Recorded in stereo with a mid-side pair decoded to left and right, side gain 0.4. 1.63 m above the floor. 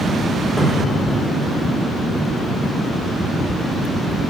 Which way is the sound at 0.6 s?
Straight ahead.